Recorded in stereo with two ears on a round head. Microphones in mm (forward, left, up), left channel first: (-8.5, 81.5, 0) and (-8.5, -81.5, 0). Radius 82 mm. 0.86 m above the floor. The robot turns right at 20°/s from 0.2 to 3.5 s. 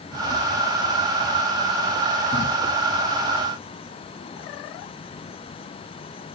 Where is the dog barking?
No dog barking in this recording.